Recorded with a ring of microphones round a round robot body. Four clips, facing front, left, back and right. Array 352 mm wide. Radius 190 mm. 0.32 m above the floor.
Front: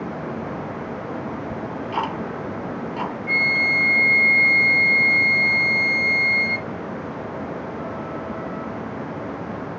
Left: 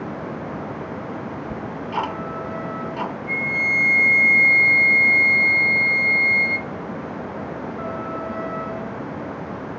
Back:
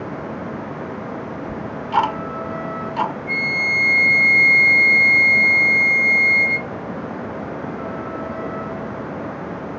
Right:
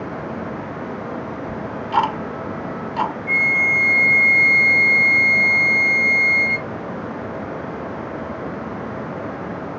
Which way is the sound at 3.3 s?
60° right.